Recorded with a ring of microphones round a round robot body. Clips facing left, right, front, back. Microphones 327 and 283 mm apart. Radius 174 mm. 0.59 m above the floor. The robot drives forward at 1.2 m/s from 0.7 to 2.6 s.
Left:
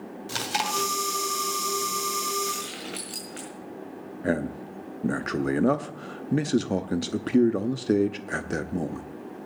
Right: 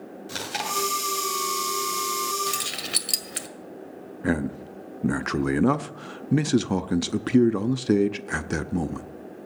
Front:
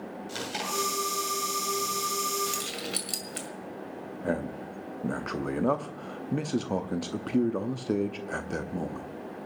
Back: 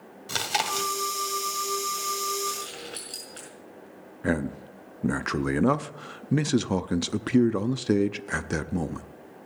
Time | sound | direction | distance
0.3 | chewing | 170° left | 2 m
2.5 | keys jangling | 55° right | 1.9 m
4.2 | a man speaking | 150° right | 0.6 m